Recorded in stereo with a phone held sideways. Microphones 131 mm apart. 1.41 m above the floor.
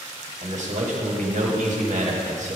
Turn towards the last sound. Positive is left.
turn(degrees=-70)  # may be behind; listen again after turning